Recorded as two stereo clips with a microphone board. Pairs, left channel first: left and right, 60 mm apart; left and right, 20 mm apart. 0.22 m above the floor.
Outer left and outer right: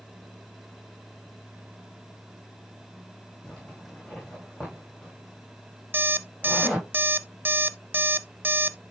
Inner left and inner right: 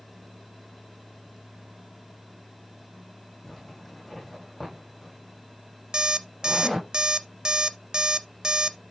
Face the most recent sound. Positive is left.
turn(degrees=-35)  # may be behind; listen again after turning